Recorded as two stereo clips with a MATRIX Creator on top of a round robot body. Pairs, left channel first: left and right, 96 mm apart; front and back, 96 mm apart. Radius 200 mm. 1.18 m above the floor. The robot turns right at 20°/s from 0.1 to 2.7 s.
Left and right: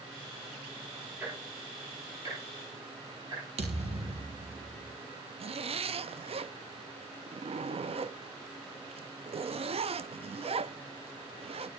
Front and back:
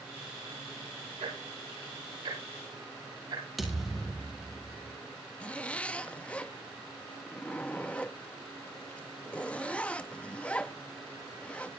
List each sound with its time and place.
1.2 s ticking: 165° right, 9 m; by 3.4 s 135° right, 9 m
3.6 s a thud: 90° right, 1.9 m
5.4 s a zipper: 75° right, 0.6 m